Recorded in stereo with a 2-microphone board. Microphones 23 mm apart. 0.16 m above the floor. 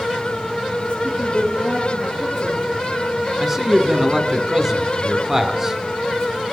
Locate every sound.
1.0 s a woman speaking: 80° left, 5.5 m
3.4 s a man speaking: 10° right (ahead or behind), 1.2 m